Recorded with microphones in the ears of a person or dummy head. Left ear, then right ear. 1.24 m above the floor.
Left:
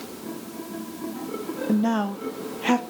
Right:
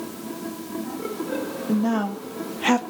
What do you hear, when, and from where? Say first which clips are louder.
1.7 s a woman speaking: even; 25° left (ahead or behind), 0.7 m; by 2.8 s 25° right (ahead or behind), 0.9 m